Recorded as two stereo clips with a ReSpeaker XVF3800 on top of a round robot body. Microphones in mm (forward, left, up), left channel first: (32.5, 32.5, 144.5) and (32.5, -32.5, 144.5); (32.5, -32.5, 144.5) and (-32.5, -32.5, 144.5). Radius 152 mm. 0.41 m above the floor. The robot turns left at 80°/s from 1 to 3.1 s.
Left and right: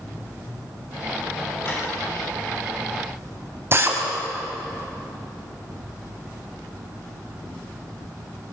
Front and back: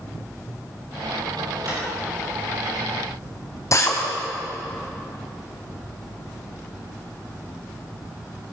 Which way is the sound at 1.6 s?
145° left.